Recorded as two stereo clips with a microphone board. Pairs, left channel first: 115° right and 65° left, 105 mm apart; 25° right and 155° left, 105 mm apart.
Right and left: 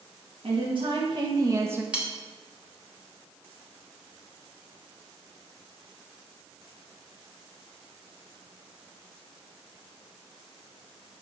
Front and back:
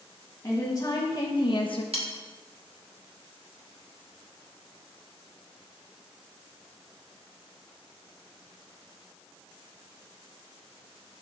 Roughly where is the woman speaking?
Ahead left.